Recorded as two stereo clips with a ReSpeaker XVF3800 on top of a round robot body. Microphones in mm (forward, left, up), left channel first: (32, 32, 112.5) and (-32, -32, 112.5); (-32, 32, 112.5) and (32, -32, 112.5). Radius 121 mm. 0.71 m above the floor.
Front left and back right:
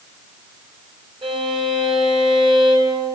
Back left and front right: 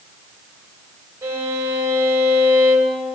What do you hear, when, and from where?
1.2 s a violin: 105° right, 3 m